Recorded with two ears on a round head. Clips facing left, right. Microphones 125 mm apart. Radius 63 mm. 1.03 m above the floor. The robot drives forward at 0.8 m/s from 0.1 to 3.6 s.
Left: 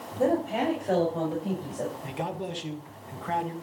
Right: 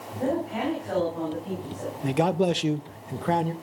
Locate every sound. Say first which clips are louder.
0.2 s a woman speaking: left 2 dB; 35° left (ahead or behind), 5.5 m; by 1.9 s 45° left (ahead or behind), 4.5 m
2.0 s a man speaking: right 10 dB; 55° right (ahead or behind), 0.8 m; by 3.5 s 40° right (ahead or behind), 1.1 m